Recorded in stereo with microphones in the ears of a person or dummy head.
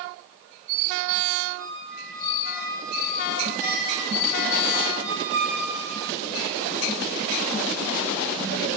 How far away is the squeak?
About 6 m.